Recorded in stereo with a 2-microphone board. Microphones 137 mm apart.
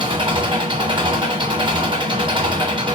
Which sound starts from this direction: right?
An engine running, at 0.0 s.